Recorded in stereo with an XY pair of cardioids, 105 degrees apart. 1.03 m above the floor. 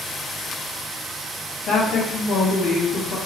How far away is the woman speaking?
About 1.0 m.